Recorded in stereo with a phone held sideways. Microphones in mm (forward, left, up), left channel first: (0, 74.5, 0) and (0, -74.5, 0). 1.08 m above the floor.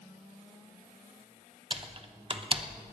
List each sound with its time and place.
1.7 s typing on a keyboard: 35° right (ahead or behind), 0.9 m